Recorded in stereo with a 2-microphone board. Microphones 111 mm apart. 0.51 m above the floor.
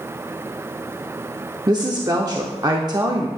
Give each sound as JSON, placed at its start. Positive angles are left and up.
{"t": 1.7, "sound": "a woman speaking", "side_deg": -35, "distance_m": 0.8}